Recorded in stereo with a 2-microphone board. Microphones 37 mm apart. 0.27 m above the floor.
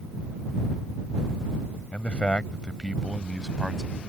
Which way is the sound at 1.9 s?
35° left (ahead or behind).